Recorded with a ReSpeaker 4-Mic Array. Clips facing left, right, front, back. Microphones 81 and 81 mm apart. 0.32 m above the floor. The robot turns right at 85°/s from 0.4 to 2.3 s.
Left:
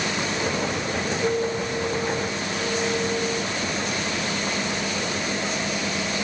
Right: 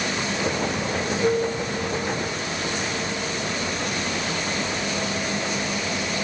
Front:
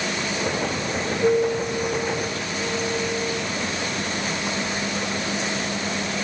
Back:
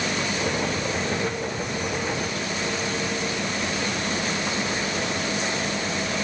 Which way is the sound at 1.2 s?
5° right.